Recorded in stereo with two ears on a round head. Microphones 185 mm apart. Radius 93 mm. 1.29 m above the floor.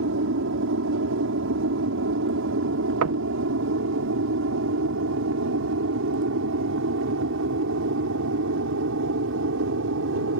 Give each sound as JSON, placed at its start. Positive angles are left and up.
{"t": 0.0, "sound": "an aircraft", "side_deg": -70}
{"t": 3.0, "sound": "knocking", "side_deg": -80}